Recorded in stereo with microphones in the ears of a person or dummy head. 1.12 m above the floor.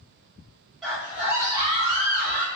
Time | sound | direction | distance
0.8 | a scream | centre (ahead or behind) | 1.3 m